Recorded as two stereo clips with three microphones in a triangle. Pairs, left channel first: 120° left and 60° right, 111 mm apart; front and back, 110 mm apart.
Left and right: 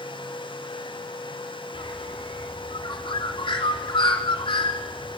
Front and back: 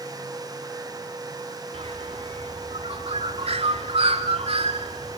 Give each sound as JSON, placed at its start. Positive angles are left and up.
{"t": 1.7, "sound": "a bird", "azimuth_deg": 160, "distance_m": 3.5}